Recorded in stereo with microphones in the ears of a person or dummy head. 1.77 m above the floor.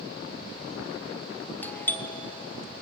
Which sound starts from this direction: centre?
A doorbell, at 1.6 s.